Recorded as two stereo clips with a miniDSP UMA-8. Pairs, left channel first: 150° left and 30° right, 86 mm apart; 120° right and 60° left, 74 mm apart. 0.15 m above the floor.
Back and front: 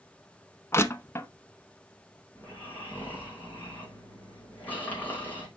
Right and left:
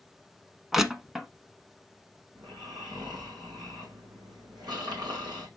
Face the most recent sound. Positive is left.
turn(degrees=80)